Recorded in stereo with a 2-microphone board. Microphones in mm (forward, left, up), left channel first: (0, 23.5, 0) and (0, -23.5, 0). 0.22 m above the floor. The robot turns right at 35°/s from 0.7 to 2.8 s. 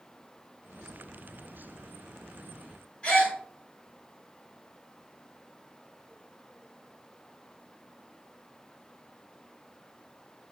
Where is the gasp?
25° left (ahead or behind), 1.5 m.